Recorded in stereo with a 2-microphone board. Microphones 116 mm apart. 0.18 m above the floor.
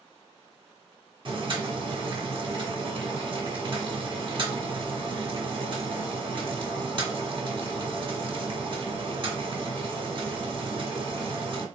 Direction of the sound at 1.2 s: 45° right (ahead or behind).